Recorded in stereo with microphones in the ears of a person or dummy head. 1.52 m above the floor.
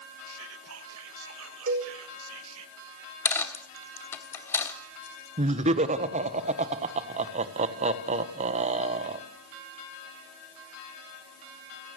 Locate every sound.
0.3 s whispering: 75° right (ahead or behind), 2 m
1.7 s a cowbell: 50° right (ahead or behind), 5 m
3.2 s a dropped coin: 15° left (ahead or behind), 1.3 m
5.4 s laughter: 40° right (ahead or behind), 1.4 m